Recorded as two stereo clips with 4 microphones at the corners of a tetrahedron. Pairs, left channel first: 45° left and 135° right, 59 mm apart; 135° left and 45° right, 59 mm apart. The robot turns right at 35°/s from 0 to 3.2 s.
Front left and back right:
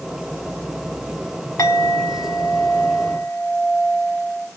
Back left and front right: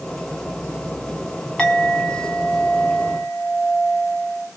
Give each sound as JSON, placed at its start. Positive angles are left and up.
{"t": 1.6, "sound": "a clink", "azimuth_deg": 55, "distance_m": 1.5}